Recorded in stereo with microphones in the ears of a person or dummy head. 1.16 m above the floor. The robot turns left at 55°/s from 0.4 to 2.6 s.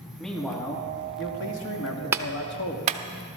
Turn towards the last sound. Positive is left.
turn(degrees=-35)  # may be behind; listen again after turning